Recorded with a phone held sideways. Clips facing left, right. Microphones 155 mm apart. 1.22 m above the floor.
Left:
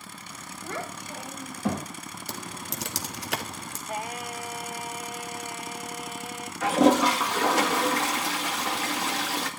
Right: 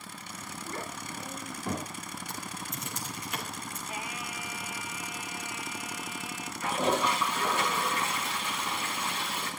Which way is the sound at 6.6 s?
85° left.